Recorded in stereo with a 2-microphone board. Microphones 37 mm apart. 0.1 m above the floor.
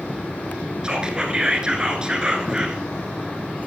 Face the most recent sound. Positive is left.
turn(degrees=-25)  # may be behind; listen again after turning